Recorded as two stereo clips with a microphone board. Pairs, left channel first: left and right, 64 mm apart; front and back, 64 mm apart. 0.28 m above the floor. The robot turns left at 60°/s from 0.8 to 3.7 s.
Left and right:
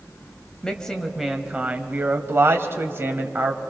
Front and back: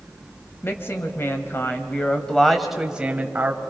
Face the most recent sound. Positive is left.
turn(degrees=-155)